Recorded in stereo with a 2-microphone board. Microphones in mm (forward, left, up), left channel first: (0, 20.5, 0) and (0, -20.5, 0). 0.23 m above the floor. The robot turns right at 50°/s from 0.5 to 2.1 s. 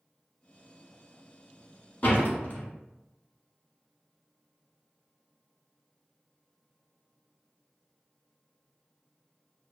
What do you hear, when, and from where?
2.0 s a door slam: 40° left (ahead or behind), 1.1 m